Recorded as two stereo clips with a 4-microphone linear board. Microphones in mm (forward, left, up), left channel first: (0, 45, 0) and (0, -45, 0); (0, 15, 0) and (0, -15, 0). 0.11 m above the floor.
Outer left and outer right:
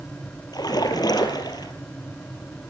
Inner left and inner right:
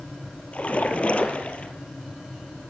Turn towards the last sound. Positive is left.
turn(degrees=45)  # may be behind; listen again after turning